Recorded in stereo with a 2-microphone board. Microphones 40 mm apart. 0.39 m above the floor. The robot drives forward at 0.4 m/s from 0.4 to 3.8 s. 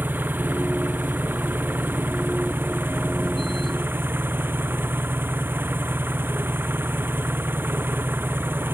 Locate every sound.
0.0 s an engine running: 55° right (ahead or behind); by 8.8 s 60° right (ahead or behind)